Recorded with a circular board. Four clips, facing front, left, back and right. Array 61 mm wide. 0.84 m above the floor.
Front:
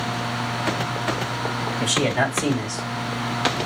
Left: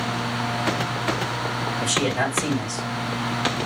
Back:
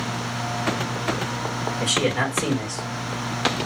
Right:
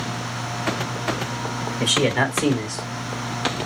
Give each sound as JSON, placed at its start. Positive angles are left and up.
{"t": 1.8, "sound": "a man speaking", "azimuth_deg": -95, "distance_m": 3.5}